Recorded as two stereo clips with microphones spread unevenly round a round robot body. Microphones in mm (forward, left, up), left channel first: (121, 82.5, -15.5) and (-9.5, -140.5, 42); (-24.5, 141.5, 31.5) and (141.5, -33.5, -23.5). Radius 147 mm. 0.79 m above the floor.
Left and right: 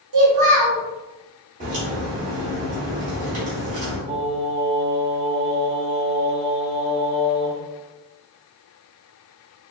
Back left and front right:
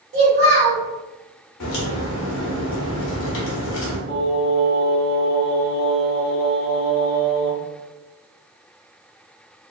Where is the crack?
175° left, 0.7 m.